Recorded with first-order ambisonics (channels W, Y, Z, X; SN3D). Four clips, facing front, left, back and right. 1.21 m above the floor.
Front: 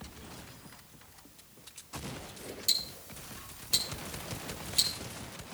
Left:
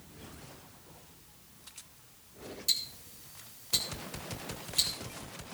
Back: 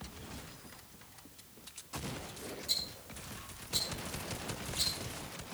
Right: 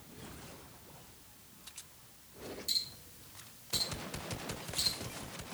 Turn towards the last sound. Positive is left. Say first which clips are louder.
# left 4 dB, front 5 dB
turn(degrees=25)